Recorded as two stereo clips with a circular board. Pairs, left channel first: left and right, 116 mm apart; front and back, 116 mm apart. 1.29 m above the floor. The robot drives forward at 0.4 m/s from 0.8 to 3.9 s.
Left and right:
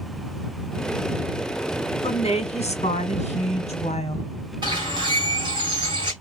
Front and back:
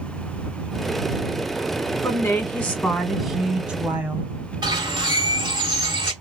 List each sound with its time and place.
2.0 s a woman speaking: 65° left, 1.2 m; by 4.2 s 105° left, 1.2 m
4.6 s a bird: 135° right, 2 m